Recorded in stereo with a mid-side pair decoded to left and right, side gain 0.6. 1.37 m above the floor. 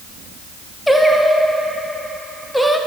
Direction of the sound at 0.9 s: 5° left.